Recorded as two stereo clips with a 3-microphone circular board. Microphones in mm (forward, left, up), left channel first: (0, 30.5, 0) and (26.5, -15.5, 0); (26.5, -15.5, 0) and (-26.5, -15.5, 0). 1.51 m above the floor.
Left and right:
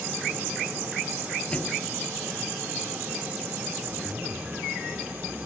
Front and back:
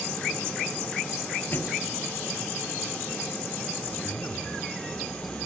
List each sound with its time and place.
1.5 s a thud: 50° left
3.8 s a zipper: 10° left